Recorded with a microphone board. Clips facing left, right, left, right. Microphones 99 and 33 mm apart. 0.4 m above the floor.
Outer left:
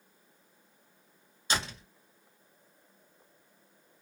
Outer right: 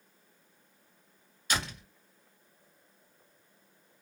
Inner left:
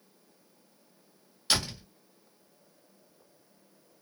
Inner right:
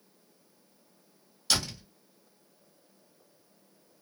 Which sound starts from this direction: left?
A door slam, at 1.5 s.